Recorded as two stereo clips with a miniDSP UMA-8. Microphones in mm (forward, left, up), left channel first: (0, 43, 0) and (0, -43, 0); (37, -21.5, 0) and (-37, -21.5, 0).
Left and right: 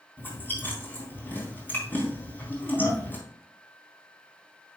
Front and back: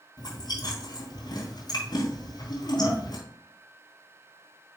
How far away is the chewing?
About 4 m.